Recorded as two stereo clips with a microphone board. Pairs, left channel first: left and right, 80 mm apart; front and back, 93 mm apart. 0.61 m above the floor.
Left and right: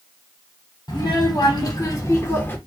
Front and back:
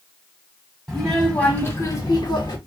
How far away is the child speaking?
About 1.1 m.